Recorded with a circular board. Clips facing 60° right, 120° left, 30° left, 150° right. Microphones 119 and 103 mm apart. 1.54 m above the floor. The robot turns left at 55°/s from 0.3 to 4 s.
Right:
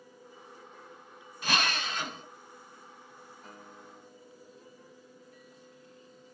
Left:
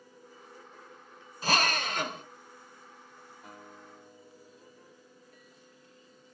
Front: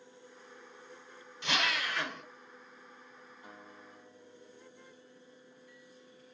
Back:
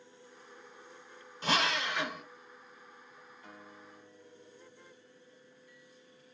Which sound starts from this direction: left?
A guitar, at 3.4 s.